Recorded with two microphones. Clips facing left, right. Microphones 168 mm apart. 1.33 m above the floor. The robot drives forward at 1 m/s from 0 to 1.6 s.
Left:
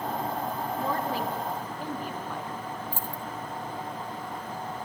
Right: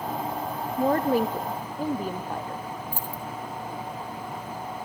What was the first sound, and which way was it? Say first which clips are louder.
A woman speaking: right 10 dB; 45° right (ahead or behind).